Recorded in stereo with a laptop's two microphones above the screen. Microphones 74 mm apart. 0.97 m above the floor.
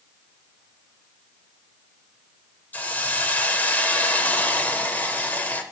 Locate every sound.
2.7 s a hiss: 25° left (ahead or behind), 0.7 m